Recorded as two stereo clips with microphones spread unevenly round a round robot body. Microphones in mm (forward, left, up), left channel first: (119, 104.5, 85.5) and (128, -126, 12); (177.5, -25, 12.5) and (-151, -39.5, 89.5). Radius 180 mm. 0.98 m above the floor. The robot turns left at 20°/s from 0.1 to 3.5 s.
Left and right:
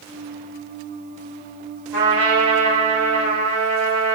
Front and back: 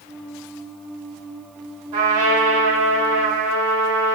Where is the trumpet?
170° left, 2.5 m; by 4.2 s 135° left, 2.5 m.